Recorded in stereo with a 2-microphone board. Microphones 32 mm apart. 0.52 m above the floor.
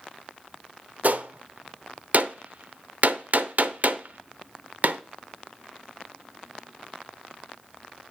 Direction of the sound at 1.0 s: 55° right (ahead or behind).